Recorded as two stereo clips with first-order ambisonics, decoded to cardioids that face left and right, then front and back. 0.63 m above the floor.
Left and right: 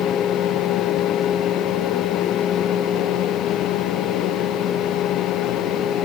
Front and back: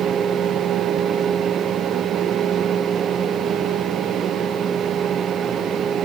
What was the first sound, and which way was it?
Only background noise.